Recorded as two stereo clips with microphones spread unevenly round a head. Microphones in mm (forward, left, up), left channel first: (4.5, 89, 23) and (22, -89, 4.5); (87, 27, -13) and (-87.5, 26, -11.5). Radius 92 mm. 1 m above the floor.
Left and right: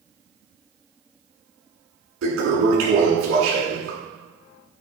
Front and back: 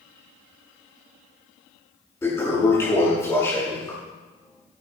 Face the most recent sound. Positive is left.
turn(degrees=-75)